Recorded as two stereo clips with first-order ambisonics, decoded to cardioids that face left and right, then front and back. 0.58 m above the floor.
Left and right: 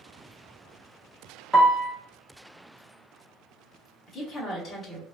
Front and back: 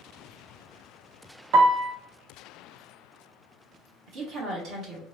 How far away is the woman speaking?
About 1.0 m.